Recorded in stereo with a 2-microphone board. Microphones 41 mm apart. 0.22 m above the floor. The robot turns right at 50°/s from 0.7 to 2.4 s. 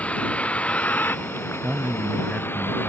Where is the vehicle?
35° left; by 2.9 s 120° left.